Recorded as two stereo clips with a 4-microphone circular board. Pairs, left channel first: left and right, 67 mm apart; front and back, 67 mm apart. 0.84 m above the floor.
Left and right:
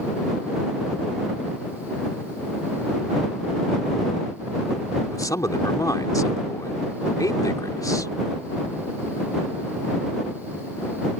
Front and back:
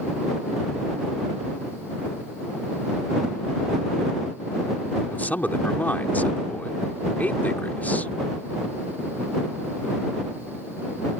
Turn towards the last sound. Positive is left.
turn(degrees=65)